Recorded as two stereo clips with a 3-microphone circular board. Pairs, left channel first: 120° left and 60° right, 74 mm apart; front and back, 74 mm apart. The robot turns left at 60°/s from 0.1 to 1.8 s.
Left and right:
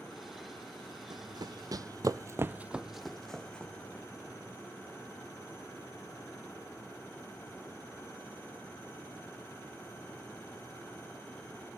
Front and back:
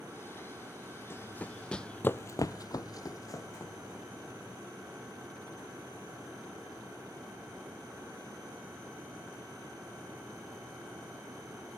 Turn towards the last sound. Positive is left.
turn(degrees=50)